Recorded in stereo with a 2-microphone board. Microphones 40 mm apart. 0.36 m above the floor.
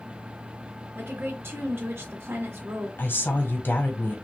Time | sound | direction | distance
0.9 | a woman speaking | 65° right (ahead or behind) | 2.5 m
3.0 | a woman speaking | 55° left (ahead or behind) | 1.6 m